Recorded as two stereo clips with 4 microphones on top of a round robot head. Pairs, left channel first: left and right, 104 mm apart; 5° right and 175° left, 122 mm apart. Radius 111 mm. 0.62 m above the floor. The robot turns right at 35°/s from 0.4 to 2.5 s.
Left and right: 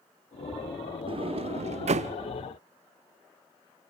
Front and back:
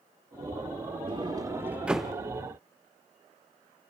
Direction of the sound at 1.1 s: 130° right.